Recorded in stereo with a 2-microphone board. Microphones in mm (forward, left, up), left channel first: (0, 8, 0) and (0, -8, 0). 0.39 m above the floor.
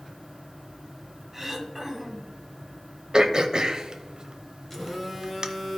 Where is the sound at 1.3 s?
5° right (ahead or behind), 1.5 m.